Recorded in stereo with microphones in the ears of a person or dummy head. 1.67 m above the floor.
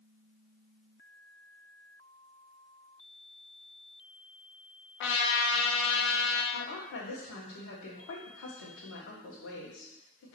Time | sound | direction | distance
5.0 | a trumpet | 75° left (ahead or behind) | 0.7 m
6.5 | a woman speaking | 80° left | 1.3 m